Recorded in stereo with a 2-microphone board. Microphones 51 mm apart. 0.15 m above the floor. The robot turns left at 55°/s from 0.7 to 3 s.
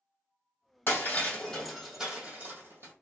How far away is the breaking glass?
About 1.8 m.